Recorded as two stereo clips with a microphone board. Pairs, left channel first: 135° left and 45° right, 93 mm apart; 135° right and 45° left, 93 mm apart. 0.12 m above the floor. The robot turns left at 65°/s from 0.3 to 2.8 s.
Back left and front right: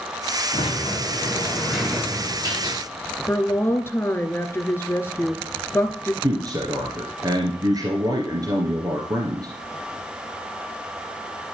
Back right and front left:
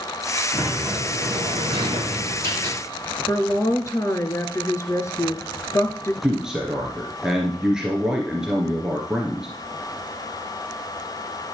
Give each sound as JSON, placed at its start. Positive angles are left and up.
{"t": 0.5, "sound": "a sliding door", "azimuth_deg": 125, "distance_m": 7.5}
{"t": 3.3, "sound": "a woman speaking", "azimuth_deg": -170, "distance_m": 1.6}
{"t": 6.2, "sound": "a man speaking", "azimuth_deg": -35, "distance_m": 2.0}